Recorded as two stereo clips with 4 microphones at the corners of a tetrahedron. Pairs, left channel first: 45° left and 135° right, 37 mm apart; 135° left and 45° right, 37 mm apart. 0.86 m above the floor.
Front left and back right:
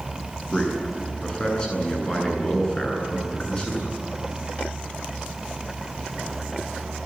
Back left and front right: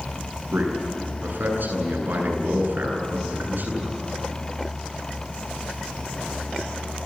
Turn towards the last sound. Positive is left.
turn(degrees=-25)